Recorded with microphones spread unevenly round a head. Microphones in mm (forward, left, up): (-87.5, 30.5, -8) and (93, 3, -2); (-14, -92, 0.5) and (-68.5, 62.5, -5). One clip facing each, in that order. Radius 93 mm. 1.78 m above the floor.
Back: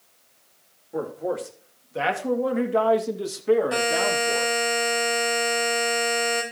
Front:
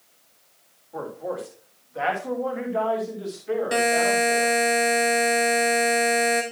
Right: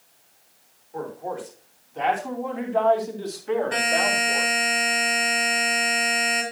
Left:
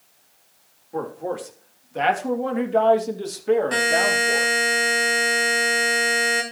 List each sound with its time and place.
0.9 s a man speaking: 110° left, 3 m; by 4.5 s 170° left, 2 m
3.7 s a buzzer: 50° left, 4 m